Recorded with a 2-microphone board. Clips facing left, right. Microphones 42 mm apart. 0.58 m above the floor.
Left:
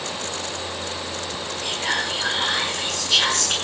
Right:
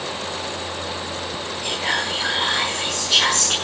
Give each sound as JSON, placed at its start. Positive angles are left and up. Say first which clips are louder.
{"t": 1.6, "sound": "whispering", "louder": "right 1 dB", "side_deg": -10, "distance_m": 5.0}